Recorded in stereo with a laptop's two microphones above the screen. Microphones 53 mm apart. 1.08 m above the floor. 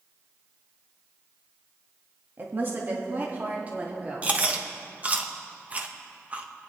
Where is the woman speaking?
45° right (ahead or behind), 1.8 m; by 4.3 s 30° right (ahead or behind), 3 m.